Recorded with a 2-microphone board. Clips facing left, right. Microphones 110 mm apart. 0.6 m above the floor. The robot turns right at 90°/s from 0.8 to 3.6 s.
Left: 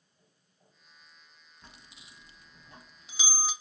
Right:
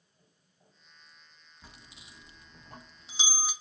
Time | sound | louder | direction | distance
1.6 | a bell | right 1 dB | 5° right (ahead or behind) | 0.5 m